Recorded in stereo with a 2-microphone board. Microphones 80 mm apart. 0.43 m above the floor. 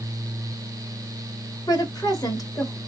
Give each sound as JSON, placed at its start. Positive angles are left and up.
{"t": 1.7, "sound": "a woman speaking", "side_deg": 50, "distance_m": 2.0}